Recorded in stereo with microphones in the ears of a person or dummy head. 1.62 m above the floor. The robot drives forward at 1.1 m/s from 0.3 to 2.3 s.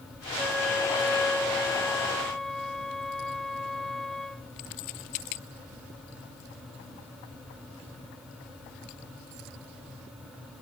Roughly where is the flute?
Centre.